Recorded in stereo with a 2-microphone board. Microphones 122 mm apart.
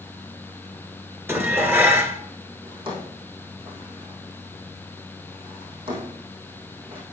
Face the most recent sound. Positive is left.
turn(degrees=-45)  # may be behind; listen again after turning